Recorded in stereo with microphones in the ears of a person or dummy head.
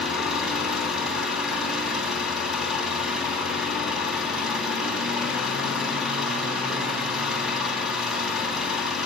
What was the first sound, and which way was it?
An engine running, 5° right (ahead or behind).